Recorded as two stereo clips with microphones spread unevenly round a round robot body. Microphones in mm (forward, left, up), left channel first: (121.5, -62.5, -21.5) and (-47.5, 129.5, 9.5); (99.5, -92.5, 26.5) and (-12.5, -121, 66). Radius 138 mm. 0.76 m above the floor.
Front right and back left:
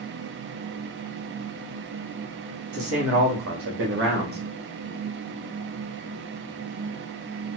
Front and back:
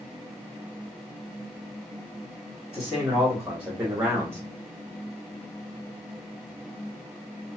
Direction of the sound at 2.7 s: 100° left.